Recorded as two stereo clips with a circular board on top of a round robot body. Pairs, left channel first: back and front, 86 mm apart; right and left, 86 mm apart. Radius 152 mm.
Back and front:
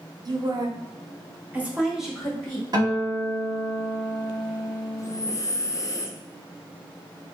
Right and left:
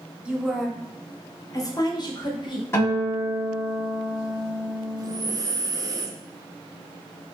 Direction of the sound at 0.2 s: 15° left.